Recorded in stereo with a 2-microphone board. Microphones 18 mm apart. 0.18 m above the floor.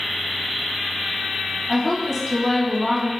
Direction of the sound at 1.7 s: 5° left (ahead or behind).